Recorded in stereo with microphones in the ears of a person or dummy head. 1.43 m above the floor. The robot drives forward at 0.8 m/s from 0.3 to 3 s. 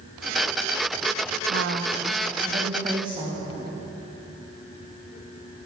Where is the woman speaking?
55° right (ahead or behind), 0.8 m; by 3.5 s 20° right (ahead or behind), 1.7 m.